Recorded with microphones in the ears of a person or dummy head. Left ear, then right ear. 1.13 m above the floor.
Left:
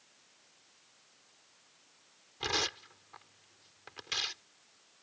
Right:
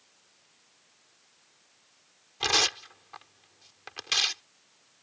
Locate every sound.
2.4 s tearing paper: 30° right (ahead or behind)